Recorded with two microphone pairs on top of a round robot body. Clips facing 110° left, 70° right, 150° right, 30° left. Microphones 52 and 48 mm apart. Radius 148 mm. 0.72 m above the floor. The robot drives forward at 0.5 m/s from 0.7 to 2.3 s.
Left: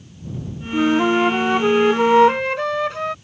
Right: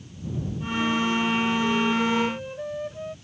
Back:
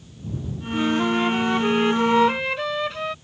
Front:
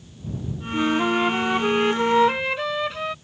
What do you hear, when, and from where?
0.7 s a flute: 105° left; by 3.1 s 115° left